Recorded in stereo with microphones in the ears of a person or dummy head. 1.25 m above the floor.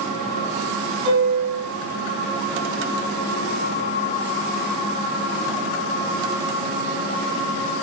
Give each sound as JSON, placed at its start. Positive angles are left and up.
{"t": 1.1, "sound": "a piano", "side_deg": -40, "distance_m": 5.5}